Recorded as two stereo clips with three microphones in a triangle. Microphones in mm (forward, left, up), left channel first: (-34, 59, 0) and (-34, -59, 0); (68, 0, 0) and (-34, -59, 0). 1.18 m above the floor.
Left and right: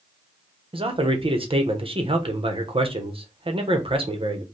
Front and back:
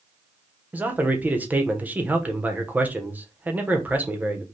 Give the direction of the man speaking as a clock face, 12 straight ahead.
3 o'clock.